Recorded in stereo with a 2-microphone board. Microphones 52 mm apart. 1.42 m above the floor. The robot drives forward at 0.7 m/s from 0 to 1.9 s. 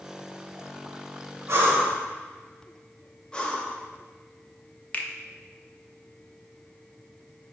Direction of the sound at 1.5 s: 55° right (ahead or behind).